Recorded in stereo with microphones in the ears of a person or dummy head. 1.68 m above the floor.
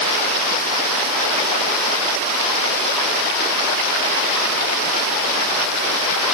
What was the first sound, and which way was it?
Only background noise.